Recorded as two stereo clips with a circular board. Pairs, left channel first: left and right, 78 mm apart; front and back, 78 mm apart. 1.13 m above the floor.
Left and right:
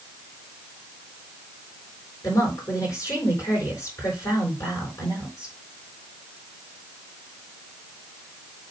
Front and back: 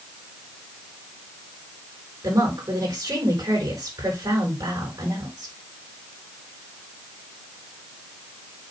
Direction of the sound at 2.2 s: 140° left.